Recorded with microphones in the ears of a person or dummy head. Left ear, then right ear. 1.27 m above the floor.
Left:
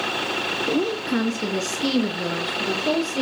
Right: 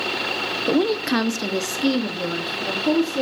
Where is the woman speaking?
60° right (ahead or behind), 0.5 m; by 3.2 s 15° left (ahead or behind), 1.7 m.